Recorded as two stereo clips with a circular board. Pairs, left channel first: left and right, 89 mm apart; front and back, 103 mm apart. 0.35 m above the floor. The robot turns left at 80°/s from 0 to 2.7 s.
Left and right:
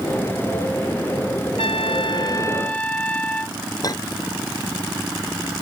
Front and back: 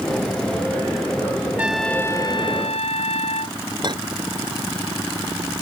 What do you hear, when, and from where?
1.6 s a trumpet: 105° left; by 3.6 s 15° left
3.8 s a clink: 135° left